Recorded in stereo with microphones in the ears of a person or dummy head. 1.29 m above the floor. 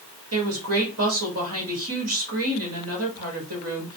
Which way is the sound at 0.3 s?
70° right (ahead or behind).